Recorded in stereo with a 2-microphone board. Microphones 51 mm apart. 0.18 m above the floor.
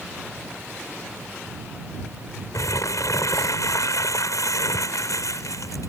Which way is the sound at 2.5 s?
85° left.